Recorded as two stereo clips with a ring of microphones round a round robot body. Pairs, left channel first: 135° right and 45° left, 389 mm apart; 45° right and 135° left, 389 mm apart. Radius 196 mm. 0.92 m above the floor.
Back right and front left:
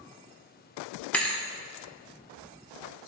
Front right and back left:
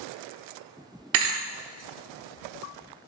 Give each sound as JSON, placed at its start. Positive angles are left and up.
{"t": 1.1, "sound": "a thud", "azimuth_deg": 140, "distance_m": 0.9}